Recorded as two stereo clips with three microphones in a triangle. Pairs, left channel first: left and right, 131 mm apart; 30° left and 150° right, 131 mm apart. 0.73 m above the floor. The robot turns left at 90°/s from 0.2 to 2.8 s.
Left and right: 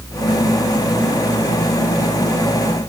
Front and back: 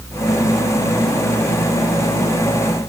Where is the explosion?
I don't hear an explosion.